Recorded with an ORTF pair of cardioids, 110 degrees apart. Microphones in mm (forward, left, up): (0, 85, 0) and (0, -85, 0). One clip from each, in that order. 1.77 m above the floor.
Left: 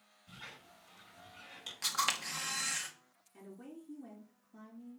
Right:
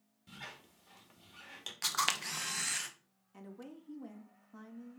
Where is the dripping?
No dripping in this recording.